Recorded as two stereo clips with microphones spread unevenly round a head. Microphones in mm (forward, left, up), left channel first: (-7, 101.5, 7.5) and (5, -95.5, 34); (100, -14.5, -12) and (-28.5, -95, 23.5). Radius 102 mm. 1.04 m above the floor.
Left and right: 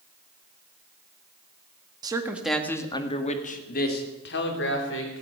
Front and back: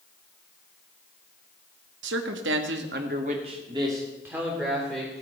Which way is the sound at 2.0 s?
160° right.